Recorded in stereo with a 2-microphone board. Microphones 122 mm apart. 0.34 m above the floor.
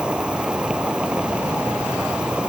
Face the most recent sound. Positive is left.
turn(degrees=-10)  # may be behind; listen again after turning